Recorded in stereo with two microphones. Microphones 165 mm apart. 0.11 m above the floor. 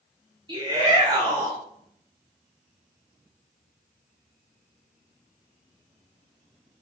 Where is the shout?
25° right (ahead or behind), 1.9 m.